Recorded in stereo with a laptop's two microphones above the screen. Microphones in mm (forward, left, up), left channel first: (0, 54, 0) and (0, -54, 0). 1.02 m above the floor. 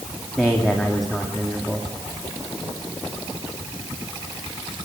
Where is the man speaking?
Centre (ahead or behind), 2.0 m.